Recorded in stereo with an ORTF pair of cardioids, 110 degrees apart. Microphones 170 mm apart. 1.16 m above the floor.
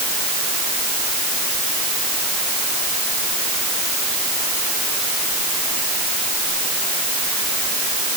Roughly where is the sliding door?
I don't hear a sliding door.